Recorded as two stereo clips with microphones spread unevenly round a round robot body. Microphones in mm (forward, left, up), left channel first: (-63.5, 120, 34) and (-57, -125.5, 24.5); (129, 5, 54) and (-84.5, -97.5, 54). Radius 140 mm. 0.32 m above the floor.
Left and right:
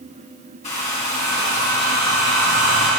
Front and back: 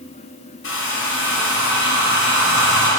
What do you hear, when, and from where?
0.6 s a hair dryer: 30° left, 1.7 m